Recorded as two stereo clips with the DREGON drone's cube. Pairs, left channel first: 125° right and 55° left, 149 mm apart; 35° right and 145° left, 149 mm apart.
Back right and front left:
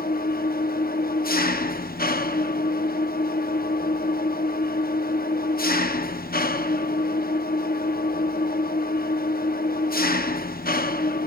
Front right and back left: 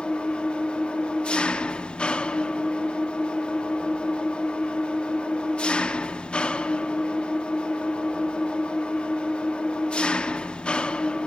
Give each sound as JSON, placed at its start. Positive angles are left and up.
{"t": 0.0, "sound": "an engine running", "azimuth_deg": -115, "distance_m": 0.9}